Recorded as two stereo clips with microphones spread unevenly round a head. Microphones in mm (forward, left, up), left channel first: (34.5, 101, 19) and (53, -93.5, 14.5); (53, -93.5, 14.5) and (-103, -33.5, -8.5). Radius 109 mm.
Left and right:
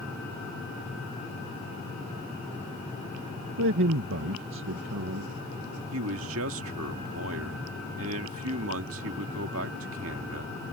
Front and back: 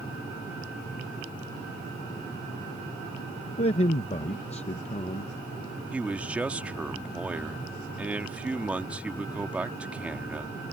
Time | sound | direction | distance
3.6 | a man speaking | 75° right | ?
5.9 | a man speaking | 115° right | ?